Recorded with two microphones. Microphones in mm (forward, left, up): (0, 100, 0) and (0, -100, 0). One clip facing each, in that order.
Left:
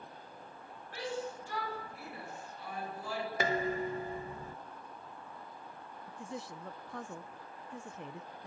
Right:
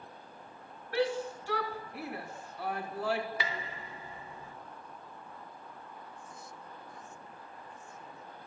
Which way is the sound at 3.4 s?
45° left (ahead or behind).